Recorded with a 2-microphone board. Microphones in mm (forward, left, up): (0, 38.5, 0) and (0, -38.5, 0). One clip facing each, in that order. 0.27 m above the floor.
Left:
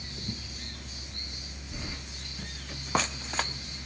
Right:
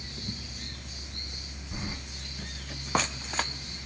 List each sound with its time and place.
1.7 s keys jangling: 30° right (ahead or behind), 1.0 m